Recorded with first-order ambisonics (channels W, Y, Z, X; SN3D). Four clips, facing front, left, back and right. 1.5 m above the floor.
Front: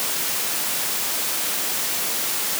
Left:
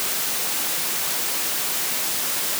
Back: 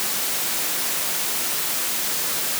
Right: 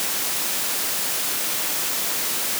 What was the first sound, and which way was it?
Only background noise.